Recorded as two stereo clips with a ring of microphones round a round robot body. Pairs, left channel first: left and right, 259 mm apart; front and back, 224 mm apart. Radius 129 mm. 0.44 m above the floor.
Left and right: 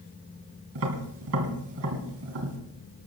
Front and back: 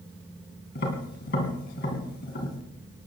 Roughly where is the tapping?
Ahead right.